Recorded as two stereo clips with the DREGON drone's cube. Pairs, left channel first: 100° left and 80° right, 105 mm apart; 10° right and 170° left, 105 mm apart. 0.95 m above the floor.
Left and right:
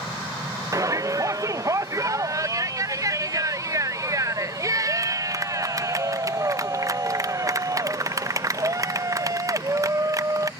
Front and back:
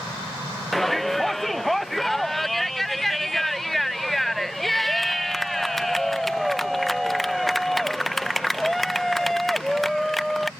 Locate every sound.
0.7 s a shout: 100° right